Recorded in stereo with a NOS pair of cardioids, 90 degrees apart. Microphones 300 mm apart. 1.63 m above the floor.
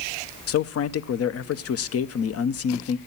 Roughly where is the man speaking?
Ahead left.